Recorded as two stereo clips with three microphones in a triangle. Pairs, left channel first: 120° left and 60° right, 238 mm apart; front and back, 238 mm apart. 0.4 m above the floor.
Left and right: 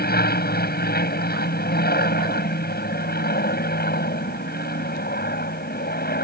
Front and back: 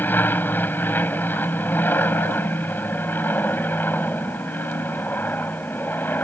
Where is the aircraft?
80° left.